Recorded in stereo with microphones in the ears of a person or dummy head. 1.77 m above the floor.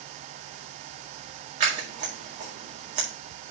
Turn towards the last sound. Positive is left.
turn(degrees=-50)  # may be behind; listen again after turning